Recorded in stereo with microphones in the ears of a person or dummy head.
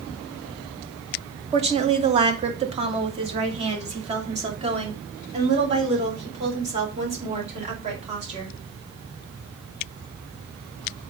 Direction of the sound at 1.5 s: 25° right (ahead or behind).